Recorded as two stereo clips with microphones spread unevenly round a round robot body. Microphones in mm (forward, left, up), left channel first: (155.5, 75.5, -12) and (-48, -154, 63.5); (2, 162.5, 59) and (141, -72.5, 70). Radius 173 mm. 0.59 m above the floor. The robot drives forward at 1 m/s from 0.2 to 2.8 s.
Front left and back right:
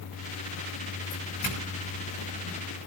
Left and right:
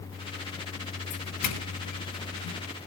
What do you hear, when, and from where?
1.1 s a doorbell: 110° left, 8 m; by 2.6 s 120° left, 8.5 m